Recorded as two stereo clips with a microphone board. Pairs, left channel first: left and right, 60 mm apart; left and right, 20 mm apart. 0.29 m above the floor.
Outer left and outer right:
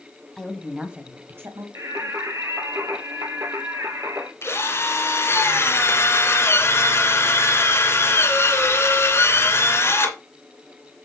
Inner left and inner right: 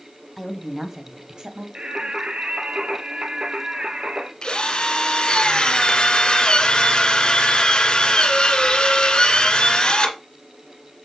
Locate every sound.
0.4 s a woman speaking: 5° left (ahead or behind), 1.9 m; by 1.6 s 50° right (ahead or behind), 1.9 m
1.8 s singing: 60° right (ahead or behind), 1.5 m
4.4 s a drill: 45° left (ahead or behind), 2.5 m